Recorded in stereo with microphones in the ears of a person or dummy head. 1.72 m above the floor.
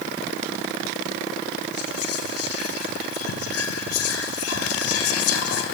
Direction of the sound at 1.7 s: 85° left.